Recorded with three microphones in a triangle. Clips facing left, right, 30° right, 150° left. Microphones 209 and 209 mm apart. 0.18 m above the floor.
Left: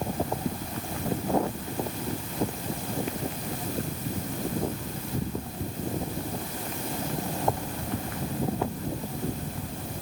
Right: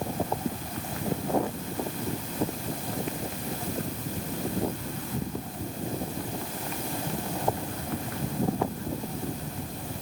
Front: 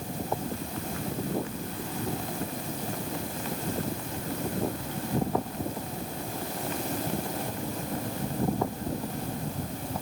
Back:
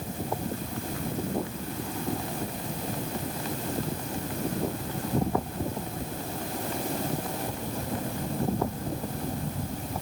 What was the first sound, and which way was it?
Only background noise.